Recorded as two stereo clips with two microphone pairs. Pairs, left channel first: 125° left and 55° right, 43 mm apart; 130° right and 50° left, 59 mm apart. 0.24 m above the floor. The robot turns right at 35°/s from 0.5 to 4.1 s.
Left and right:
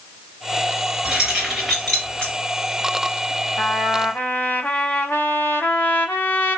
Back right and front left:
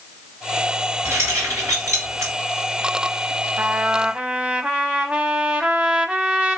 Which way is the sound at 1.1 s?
15° left.